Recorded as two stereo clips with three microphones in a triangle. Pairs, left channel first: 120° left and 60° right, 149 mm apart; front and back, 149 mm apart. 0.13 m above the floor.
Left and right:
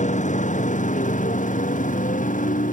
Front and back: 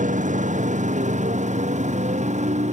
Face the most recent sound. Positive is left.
turn(degrees=145)